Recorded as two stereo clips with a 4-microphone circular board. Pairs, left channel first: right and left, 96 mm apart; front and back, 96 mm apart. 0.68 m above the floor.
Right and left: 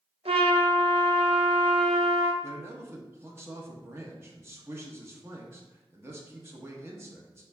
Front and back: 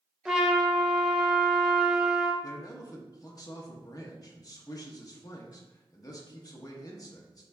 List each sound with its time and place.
0.2 s a trumpet: 95° left, 0.6 m
2.4 s a man speaking: 35° left, 0.8 m